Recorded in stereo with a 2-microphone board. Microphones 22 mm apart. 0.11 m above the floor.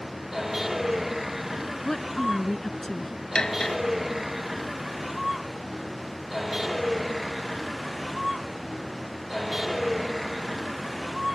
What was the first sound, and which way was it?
A vehicle, 5° right (ahead or behind).